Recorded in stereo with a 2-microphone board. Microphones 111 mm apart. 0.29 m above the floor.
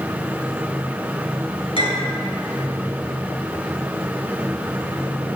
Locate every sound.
1.8 s a clink: 60° left (ahead or behind), 3.5 m